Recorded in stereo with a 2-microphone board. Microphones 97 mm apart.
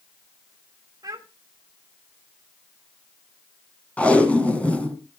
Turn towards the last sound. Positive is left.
turn(degrees=15)  # may be behind; listen again after turning